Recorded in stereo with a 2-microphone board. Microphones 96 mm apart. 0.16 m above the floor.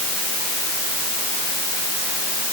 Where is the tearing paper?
I don't hear tearing paper.